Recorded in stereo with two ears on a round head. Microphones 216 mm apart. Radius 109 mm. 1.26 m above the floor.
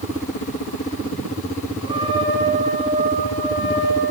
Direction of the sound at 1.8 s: 20° right (ahead or behind).